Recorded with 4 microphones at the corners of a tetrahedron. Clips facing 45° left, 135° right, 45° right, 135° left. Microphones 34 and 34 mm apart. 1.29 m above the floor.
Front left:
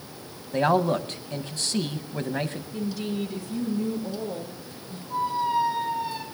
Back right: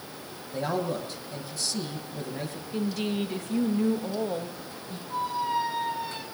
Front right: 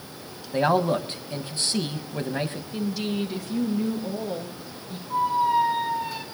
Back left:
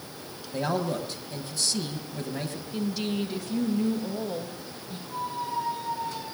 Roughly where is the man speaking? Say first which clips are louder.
Front left 7 dB, front right 7 dB; ahead.